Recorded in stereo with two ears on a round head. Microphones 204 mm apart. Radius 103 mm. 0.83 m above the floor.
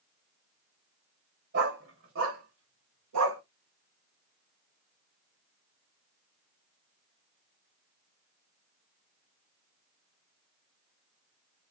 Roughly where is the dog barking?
Right.